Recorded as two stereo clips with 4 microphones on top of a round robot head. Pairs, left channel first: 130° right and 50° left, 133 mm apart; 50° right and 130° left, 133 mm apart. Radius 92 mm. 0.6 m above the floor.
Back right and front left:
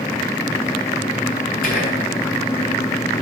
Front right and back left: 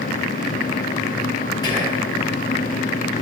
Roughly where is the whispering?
Right.